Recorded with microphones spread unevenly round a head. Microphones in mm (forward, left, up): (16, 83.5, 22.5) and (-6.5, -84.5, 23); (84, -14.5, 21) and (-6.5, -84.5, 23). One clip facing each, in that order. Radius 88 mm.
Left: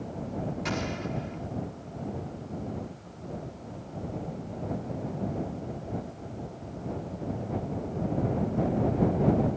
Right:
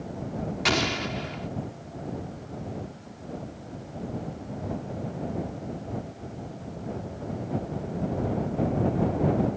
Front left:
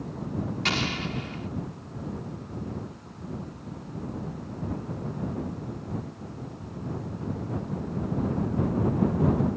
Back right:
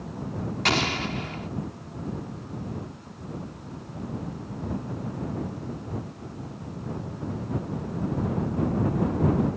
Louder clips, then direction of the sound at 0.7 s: Right 4 dB, back right 3 dB; 100° right.